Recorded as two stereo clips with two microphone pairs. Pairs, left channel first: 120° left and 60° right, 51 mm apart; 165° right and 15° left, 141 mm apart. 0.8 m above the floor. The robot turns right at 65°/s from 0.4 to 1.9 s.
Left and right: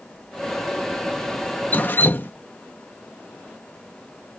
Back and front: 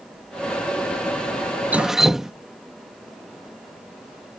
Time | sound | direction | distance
1.7 | dripping | 90° left | ?